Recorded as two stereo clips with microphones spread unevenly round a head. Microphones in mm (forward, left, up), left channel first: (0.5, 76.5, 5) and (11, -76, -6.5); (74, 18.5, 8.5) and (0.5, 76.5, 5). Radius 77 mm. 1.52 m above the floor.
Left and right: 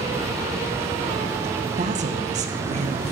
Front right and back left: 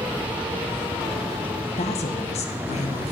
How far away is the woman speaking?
About 1.5 m.